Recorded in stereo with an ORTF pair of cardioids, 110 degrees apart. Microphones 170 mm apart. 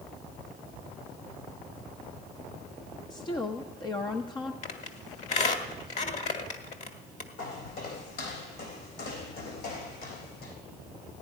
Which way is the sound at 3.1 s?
25° left.